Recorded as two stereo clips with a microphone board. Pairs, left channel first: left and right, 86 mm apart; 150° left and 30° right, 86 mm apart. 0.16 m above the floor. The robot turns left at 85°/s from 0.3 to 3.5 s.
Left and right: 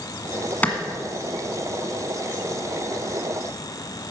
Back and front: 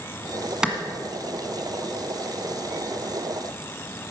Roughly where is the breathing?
No breathing in this recording.